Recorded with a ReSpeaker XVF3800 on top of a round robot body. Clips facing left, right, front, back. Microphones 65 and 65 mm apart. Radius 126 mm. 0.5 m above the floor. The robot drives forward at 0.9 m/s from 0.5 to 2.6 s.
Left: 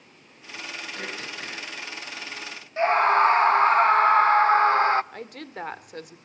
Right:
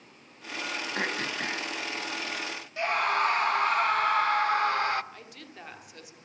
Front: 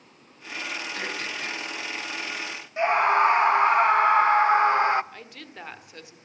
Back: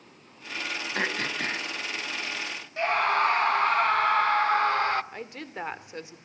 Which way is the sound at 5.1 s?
120° left.